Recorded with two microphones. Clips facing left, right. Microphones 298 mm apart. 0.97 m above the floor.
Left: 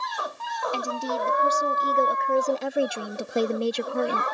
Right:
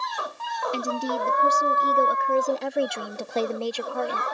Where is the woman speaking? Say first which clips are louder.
Right 2 dB; 20° right (ahead or behind); by 4.2 s 35° left (ahead or behind).